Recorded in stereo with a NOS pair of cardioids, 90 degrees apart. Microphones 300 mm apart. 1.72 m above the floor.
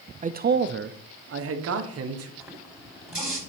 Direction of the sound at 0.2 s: 25° right.